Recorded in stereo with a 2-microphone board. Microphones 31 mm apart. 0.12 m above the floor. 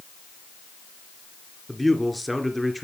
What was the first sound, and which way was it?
A man speaking, 5° right (ahead or behind).